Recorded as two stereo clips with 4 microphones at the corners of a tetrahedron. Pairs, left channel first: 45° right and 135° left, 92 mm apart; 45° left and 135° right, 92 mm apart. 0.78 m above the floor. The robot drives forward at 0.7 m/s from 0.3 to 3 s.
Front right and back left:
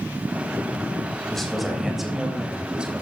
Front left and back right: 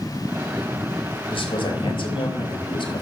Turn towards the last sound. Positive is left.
turn(degrees=60)